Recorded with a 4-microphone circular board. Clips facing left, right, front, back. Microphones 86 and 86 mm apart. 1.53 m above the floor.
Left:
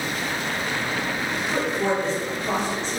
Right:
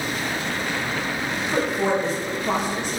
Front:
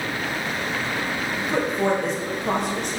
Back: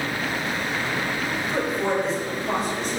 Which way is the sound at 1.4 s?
15° right.